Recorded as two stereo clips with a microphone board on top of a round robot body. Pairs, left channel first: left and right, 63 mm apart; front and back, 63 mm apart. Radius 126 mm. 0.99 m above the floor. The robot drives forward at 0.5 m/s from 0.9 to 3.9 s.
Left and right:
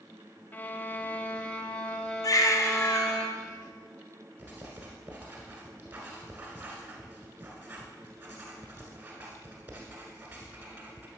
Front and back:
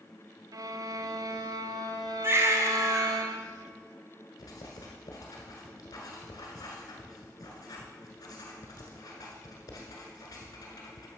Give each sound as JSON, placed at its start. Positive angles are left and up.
{"t": 0.5, "sound": "a violin", "azimuth_deg": 155, "distance_m": 0.7}
{"t": 2.2, "sound": "a baby crying", "azimuth_deg": 125, "distance_m": 0.7}
{"t": 4.4, "sound": "writing", "azimuth_deg": -35, "distance_m": 1.4}